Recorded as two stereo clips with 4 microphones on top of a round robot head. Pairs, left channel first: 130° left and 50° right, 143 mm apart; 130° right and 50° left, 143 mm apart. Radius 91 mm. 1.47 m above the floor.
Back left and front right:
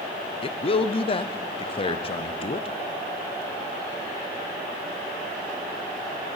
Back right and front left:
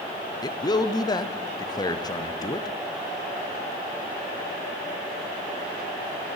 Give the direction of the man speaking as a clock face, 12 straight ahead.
6 o'clock.